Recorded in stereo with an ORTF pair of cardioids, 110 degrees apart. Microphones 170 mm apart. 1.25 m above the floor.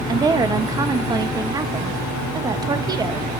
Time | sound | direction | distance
0.1 | a woman speaking | 25° right | 1.0 m